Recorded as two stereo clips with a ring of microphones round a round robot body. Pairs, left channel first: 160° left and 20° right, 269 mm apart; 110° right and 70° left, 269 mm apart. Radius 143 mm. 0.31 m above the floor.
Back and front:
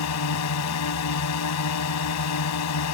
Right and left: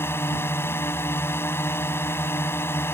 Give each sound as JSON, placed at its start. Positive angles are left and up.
{"t": 0.0, "sound": "a drone", "azimuth_deg": 165}